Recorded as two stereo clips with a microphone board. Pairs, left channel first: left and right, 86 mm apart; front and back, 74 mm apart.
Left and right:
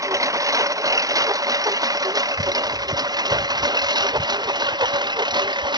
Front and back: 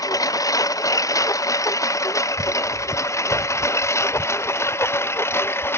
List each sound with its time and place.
0.0 s a lawn mower: 40° right; by 5.8 s 60° right